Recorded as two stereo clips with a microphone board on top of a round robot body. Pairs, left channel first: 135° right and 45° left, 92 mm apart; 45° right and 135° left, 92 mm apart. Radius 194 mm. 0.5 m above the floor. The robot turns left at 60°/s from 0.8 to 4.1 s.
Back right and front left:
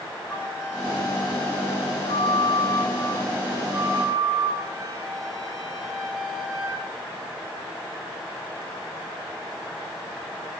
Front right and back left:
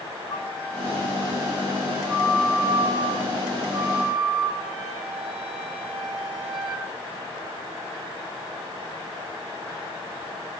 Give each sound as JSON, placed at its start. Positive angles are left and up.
{"t": 0.3, "sound": "a flute", "azimuth_deg": -65, "distance_m": 3.0}